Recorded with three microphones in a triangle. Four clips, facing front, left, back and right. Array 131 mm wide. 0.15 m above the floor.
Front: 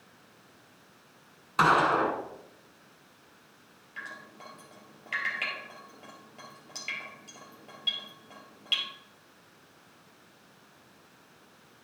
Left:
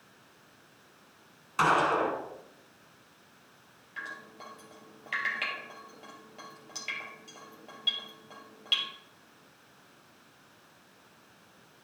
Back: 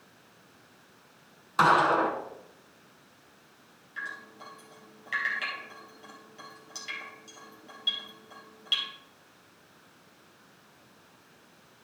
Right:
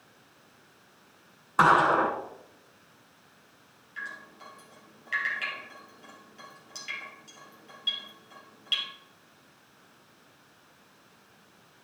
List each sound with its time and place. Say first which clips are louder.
1.6 s a gunshot: right 4 dB, back 1 dB; 90° right, 1.0 m
4.0 s dripping: right 1 dB, back 3 dB; 70° left, 2.5 m